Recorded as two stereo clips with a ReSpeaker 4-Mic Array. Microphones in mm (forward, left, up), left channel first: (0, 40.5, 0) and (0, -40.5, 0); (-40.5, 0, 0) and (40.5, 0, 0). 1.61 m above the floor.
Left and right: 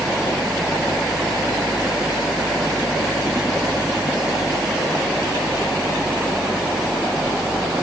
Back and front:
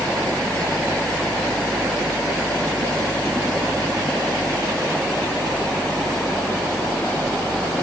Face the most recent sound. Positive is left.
No sound to turn to.